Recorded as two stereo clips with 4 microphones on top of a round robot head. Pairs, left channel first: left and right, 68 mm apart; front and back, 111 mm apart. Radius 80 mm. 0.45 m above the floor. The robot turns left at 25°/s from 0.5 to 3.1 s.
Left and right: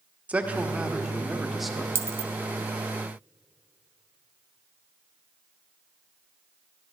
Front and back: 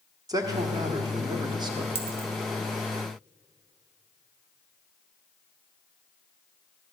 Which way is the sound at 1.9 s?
135° right.